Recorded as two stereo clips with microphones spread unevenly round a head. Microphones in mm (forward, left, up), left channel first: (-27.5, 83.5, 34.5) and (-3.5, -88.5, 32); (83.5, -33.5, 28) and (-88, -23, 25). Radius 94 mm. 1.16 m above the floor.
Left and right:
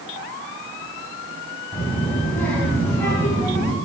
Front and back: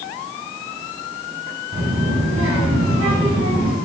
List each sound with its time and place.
1.7 s a child speaking: straight behind, 7.5 m; by 3.8 s 175° left, 8.5 m